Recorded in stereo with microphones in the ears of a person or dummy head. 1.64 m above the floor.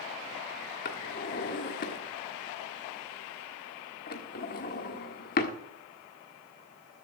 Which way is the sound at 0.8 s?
45° left (ahead or behind).